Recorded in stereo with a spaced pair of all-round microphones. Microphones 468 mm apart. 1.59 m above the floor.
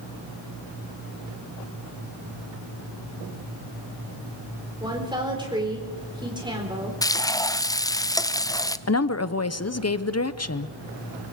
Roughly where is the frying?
Centre.